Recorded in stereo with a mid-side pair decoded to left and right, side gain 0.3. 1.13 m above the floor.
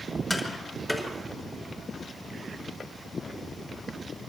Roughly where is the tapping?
Ahead.